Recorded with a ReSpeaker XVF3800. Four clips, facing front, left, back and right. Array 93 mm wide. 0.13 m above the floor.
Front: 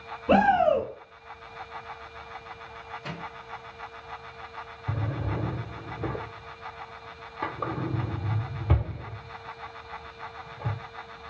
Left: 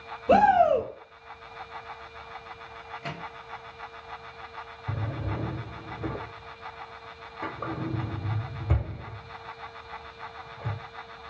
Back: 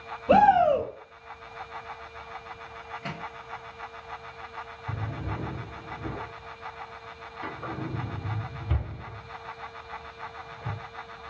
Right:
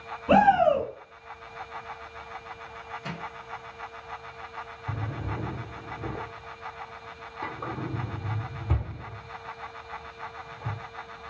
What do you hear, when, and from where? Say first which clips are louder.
0.3 s a shout: even, back 2 dB; 75° right, 1.4 m
3.0 s a microwave: left 1 dB, back 2 dB; 140° left, 1.7 m
4.9 s a drawer: left 1 dB, front 4 dB; 20° left, 0.8 m